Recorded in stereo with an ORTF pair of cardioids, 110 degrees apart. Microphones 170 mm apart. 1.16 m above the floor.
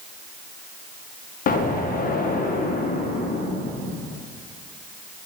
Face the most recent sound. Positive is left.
turn(degrees=55)